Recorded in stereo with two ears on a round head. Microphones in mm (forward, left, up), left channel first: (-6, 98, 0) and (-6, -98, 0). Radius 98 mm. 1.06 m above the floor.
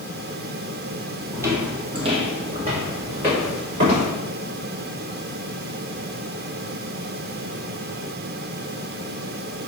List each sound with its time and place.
1.3 s footsteps: 10° right (ahead or behind), 1.1 m; by 4.1 s 25° right (ahead or behind), 4 m